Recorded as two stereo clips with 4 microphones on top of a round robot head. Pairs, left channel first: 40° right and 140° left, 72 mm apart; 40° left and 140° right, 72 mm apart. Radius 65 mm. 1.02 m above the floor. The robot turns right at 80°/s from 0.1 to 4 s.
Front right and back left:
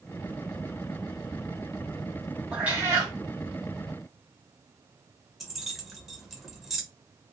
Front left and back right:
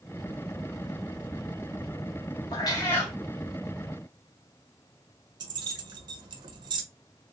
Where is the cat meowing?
60° left, 0.6 m; by 3.1 s 110° left, 0.6 m.